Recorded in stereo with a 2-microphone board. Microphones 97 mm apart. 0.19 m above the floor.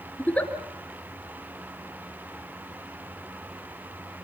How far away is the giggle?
About 2.5 m.